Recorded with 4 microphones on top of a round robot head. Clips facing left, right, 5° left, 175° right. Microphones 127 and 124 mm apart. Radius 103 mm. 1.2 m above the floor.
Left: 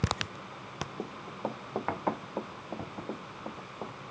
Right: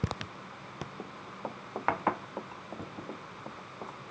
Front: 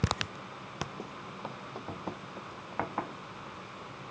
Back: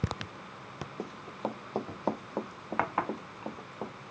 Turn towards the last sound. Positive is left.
turn(degrees=165)